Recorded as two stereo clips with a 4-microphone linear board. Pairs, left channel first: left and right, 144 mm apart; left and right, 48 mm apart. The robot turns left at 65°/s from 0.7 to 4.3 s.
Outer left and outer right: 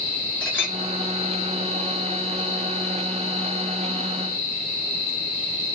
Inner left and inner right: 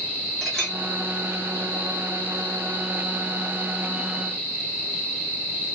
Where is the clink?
5° left (ahead or behind), 1.4 m; by 0.8 s centre (ahead or behind), 1.4 m.